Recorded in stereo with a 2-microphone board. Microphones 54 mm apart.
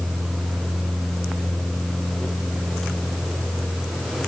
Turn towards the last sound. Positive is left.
No sound to turn to.